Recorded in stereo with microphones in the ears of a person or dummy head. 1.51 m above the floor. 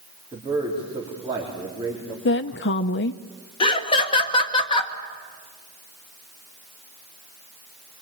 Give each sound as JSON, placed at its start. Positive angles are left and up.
{"t": 0.3, "sound": "a man speaking", "side_deg": -25, "distance_m": 4.0}
{"t": 2.2, "sound": "a woman speaking", "side_deg": 55, "distance_m": 0.6}
{"t": 3.6, "sound": "laughter", "side_deg": 25, "distance_m": 1.8}